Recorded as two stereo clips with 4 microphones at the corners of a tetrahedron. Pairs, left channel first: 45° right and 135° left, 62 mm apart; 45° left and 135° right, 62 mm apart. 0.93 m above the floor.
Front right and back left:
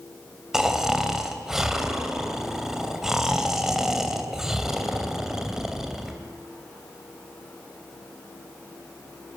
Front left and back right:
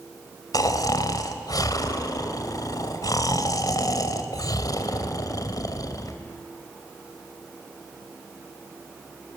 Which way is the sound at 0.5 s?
50° left.